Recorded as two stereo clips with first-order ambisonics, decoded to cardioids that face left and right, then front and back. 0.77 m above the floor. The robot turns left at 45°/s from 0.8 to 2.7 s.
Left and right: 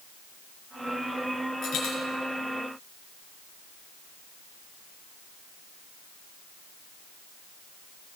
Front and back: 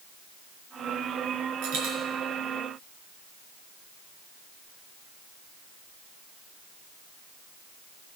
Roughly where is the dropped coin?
Behind left.